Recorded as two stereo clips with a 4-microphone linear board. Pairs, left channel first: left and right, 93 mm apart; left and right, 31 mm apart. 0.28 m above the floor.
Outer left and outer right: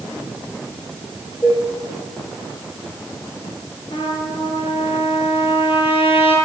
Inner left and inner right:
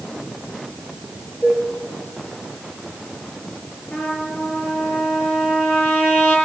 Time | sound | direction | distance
1.4 | dishes clattering | 25° left (ahead or behind) | 7 m
3.9 | a trumpet | 65° left (ahead or behind) | 5 m